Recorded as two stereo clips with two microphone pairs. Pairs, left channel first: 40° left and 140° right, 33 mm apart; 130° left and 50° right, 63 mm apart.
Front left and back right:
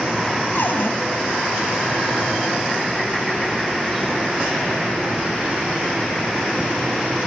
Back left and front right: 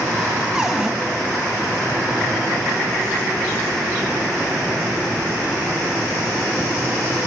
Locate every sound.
0.6 s a cupboard door: 30° left, 2.5 m